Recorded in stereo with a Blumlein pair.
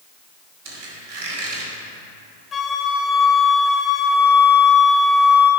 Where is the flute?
20° left, 0.8 m.